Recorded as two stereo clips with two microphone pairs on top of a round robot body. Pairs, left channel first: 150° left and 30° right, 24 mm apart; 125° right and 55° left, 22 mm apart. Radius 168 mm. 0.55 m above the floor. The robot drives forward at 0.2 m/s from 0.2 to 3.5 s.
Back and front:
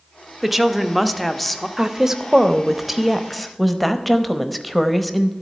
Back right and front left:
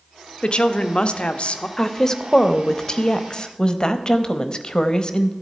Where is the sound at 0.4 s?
110° right, 0.8 m; by 1.7 s 130° right, 0.9 m.